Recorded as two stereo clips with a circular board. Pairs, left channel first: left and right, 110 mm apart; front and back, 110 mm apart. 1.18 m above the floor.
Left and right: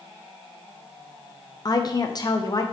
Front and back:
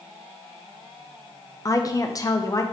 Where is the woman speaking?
50° left, 0.5 m.